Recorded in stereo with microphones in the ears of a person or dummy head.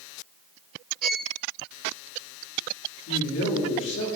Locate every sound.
1.0 s a violin: 5° left (ahead or behind), 0.7 m
3.1 s a man speaking: 80° left, 2.5 m